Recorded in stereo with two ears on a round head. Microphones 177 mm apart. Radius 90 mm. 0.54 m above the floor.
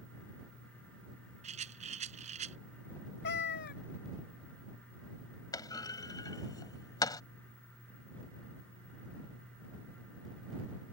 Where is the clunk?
20° left (ahead or behind).